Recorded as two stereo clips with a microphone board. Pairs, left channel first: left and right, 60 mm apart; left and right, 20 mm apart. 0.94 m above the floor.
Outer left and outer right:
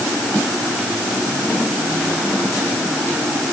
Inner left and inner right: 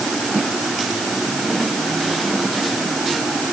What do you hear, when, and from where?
Only background noise.